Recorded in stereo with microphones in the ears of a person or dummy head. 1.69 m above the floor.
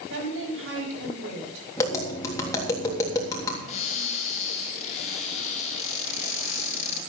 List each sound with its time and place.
0.1 s a woman speaking: 75° right (ahead or behind), 9 m
1.8 s tapping: 20° left (ahead or behind), 3.5 m
3.7 s a cupboard door: 40° left (ahead or behind), 3 m